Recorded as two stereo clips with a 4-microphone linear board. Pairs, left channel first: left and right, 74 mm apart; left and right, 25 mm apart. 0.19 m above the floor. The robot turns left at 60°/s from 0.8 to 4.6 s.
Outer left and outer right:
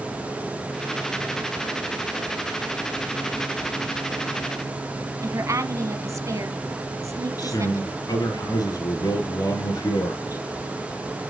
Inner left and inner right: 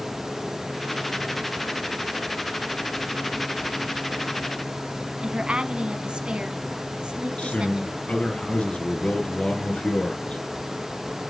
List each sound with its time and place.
5.2 s a woman speaking: 45° right (ahead or behind), 1.4 m
7.4 s a man speaking: 55° left (ahead or behind), 3 m